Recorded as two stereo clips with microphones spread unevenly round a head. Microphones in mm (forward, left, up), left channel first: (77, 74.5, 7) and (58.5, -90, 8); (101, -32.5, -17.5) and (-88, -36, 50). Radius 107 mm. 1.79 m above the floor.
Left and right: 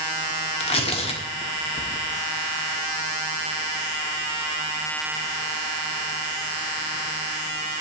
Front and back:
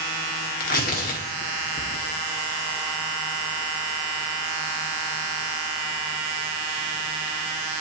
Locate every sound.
0.6 s tearing paper: 55° left, 1.6 m